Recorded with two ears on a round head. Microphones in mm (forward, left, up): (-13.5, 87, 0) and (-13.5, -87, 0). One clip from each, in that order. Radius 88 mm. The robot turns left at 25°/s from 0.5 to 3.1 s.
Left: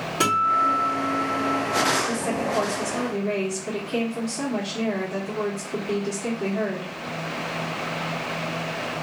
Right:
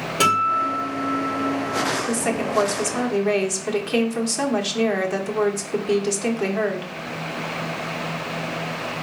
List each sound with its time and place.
0.2 s a guitar: 155° right, 3 m; by 2.0 s 165° left, 3 m
2.1 s a woman speaking: 65° right (ahead or behind), 1.3 m; by 6.9 s 45° right (ahead or behind), 1.3 m